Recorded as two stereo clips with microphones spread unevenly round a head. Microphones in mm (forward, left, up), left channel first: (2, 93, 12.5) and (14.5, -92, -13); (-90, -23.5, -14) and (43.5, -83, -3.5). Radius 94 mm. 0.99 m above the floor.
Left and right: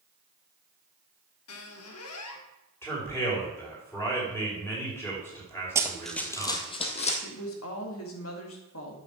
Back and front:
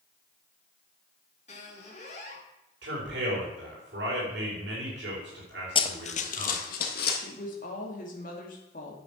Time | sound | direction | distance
1.5 | a squeak | 95° left | 1.7 m
2.8 | a man speaking | 15° left | 5.5 m
5.8 | running footsteps | 165° right | 1.2 m
7.2 | a woman speaking | 110° left | 2 m